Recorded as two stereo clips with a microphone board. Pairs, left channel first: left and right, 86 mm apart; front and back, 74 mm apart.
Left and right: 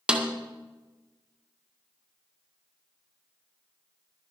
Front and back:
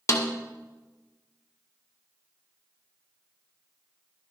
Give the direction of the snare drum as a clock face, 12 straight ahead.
1 o'clock.